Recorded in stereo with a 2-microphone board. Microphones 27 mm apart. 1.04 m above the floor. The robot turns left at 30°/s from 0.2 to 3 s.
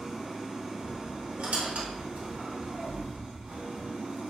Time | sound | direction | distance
0.0 | an engine running | 5° right | 1.3 m
1.4 | a squeak | 75° right (ahead or behind) | 0.9 m